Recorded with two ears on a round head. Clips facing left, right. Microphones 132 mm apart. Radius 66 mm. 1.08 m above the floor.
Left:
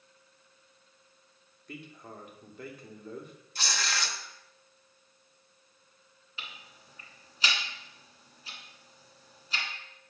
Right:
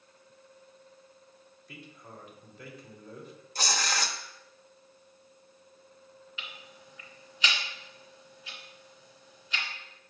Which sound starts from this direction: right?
Tearing paper, at 3.5 s.